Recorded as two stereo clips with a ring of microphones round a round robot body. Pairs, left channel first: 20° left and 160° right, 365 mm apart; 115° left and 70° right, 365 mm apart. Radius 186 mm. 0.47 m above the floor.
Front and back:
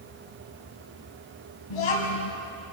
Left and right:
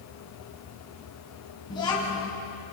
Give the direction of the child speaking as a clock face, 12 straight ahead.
11 o'clock.